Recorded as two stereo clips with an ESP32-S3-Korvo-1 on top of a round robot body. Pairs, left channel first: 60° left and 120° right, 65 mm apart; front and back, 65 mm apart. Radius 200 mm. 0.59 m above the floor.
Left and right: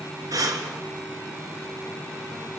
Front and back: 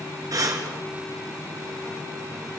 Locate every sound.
0.3 s breathing: 150° right, 3 m